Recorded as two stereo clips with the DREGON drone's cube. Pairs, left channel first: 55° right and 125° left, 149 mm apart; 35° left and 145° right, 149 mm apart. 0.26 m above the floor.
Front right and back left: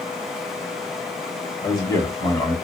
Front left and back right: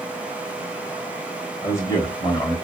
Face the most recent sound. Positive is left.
turn(degrees=-15)